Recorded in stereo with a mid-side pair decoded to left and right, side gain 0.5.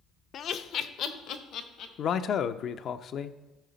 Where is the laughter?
55° left, 0.6 m; by 1.9 s 70° left, 1.6 m.